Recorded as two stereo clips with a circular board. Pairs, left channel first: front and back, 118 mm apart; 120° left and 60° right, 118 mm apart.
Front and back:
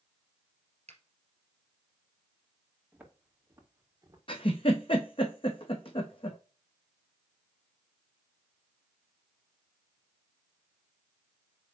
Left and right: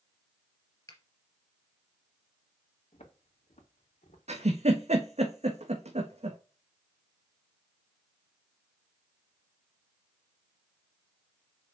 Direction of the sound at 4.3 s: 40° right.